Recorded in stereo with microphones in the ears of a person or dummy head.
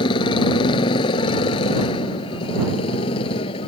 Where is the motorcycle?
30° left (ahead or behind).